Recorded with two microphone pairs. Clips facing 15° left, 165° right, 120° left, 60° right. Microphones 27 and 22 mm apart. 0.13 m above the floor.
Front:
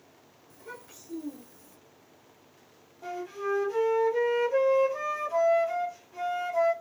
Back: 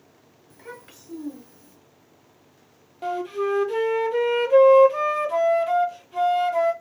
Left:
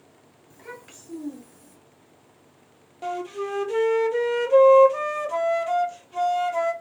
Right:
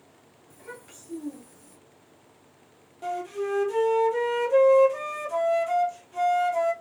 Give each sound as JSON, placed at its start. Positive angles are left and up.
{"t": 0.5, "sound": "a child speaking", "azimuth_deg": 175, "distance_m": 1.6}
{"t": 3.0, "sound": "a flute", "azimuth_deg": -170, "distance_m": 0.6}